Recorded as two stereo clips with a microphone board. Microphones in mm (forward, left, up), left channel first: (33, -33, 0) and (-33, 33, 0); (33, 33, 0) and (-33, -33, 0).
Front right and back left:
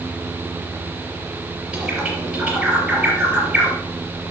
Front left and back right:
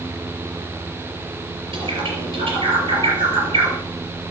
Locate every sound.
1.7 s a bird: 145° right, 4 m